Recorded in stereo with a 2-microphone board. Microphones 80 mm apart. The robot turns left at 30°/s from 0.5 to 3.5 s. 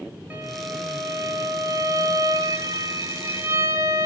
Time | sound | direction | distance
0.3 | a violin | 35° right | 0.8 m